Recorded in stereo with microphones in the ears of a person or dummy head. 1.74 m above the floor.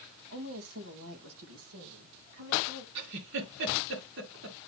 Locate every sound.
0.3 s a woman speaking: 75° right (ahead or behind), 2.5 m; by 2.9 s 60° right (ahead or behind), 2 m
3.0 s a giggle: 65° right (ahead or behind), 2 m